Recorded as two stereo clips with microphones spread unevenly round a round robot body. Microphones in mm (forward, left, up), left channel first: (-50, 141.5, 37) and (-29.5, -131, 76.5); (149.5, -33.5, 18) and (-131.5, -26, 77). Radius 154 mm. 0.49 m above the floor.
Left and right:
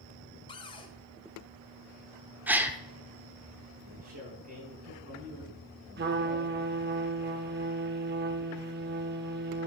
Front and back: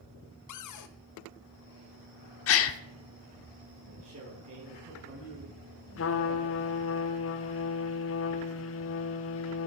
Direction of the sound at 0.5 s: 20° left.